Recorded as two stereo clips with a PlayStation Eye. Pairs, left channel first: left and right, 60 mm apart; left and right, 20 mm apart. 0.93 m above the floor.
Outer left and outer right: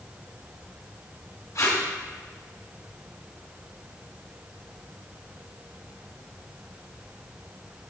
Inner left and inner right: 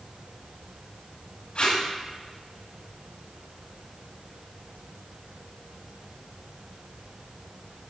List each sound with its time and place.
1.6 s tape being pulled: 65° left (ahead or behind), 2.5 m